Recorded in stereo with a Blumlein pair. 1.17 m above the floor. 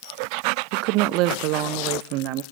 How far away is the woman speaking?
About 0.7 m.